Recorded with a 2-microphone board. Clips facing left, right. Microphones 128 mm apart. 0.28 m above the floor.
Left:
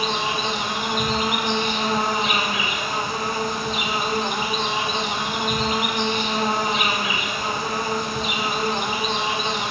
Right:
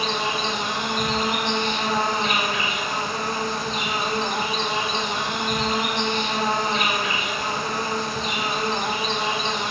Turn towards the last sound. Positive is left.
turn(degrees=5)  # may be behind; listen again after turning